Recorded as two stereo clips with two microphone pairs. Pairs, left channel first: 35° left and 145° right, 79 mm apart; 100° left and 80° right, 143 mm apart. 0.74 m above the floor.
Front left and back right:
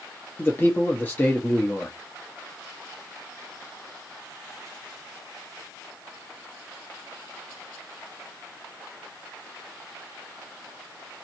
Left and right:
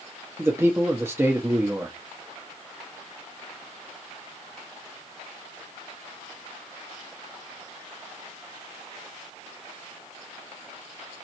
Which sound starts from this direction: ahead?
A man speaking, at 0.4 s.